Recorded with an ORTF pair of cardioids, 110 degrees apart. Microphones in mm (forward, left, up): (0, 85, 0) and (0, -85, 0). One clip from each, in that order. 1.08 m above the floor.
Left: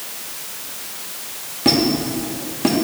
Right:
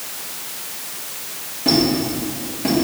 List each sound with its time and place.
1.6 s a squeak: 45° left, 1.5 m